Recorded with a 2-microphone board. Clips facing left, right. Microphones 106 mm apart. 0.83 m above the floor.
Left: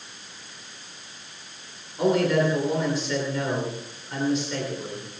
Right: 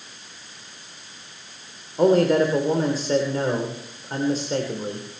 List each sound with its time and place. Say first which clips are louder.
2.0 s a man speaking: right 4 dB; 40° right (ahead or behind), 3 m